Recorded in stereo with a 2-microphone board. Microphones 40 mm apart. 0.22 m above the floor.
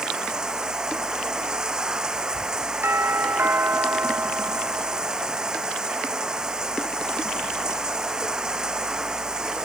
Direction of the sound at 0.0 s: 20° right (ahead or behind).